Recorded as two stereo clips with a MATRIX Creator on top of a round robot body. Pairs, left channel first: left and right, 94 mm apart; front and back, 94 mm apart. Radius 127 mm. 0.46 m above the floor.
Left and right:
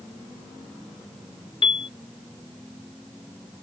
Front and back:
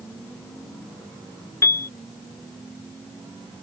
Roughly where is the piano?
Ahead left.